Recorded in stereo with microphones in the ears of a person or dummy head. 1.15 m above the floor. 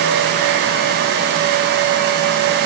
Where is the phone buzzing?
I don't hear a phone buzzing.